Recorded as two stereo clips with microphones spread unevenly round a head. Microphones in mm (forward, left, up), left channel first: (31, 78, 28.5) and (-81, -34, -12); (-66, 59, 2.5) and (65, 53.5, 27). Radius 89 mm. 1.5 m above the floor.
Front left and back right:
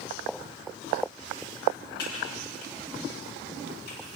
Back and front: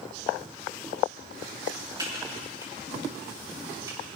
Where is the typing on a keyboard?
60° left, 8 m.